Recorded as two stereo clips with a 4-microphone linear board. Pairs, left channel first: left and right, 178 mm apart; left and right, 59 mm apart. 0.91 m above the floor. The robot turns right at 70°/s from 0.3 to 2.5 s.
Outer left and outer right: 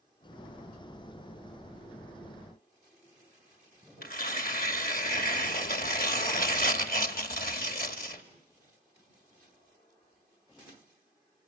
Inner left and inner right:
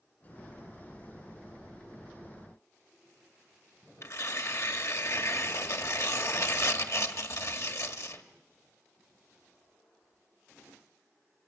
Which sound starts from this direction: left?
Tearing paper, at 4.0 s.